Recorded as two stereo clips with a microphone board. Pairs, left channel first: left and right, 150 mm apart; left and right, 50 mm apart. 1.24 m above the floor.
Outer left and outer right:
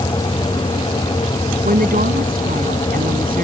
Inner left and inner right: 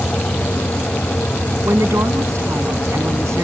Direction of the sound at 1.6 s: 80° right.